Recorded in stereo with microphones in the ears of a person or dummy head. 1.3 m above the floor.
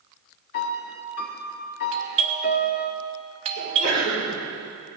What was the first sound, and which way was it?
A piano, 45° left (ahead or behind).